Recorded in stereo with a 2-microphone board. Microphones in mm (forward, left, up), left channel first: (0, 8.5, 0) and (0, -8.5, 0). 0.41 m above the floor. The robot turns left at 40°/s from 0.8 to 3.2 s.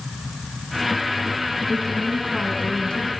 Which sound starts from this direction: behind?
A woman speaking, at 1.7 s.